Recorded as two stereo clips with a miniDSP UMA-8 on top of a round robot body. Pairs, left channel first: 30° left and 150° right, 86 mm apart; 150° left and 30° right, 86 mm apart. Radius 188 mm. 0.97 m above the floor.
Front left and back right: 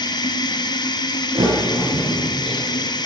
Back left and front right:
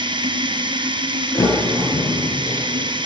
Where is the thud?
155° right, 8 m.